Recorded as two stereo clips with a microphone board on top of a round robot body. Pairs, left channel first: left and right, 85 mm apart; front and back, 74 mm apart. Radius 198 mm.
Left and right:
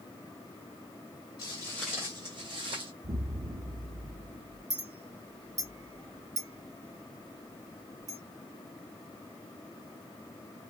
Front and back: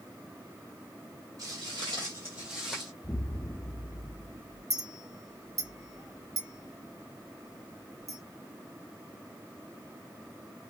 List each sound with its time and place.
1.4 s footsteps: 130° left, 1.2 m; by 2.9 s 95° right, 1.7 m
3.0 s an explosion: 70° right, 0.7 m
4.7 s a clink: 140° right, 2.5 m